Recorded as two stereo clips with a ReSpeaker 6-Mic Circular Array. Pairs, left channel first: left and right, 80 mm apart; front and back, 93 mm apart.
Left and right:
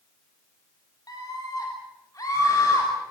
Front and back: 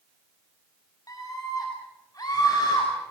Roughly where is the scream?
Ahead left.